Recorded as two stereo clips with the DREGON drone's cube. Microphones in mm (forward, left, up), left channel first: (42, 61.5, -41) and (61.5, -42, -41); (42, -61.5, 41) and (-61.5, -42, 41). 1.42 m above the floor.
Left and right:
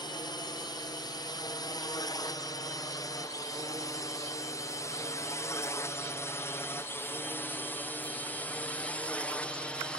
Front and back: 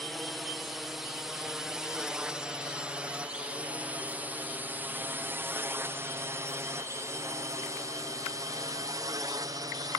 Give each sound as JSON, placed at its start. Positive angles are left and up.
{"t": 0.0, "sound": "a drone", "azimuth_deg": 80}